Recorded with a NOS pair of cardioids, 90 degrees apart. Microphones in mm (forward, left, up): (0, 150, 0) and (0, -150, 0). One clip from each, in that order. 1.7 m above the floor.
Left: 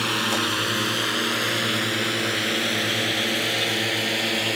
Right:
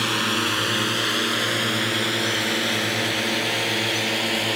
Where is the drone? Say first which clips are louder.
Right 1 dB; 5° right.